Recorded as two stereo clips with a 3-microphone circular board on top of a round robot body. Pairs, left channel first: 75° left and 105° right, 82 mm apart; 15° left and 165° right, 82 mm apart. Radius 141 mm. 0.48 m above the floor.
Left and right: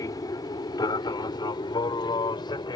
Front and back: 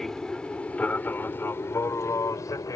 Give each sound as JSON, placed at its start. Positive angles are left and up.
{"t": 0.0, "sound": "an aircraft", "azimuth_deg": 100}